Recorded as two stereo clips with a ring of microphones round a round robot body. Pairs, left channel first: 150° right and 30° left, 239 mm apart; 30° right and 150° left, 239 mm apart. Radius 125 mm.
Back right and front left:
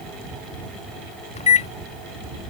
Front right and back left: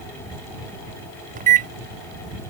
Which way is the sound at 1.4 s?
170° left.